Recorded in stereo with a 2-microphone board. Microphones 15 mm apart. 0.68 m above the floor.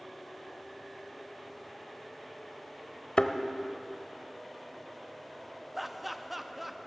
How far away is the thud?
About 0.6 m.